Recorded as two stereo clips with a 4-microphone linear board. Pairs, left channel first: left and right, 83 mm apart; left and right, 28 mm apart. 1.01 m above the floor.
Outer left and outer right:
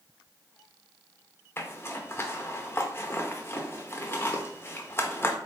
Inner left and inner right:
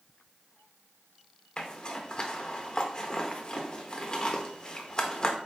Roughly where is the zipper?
Left.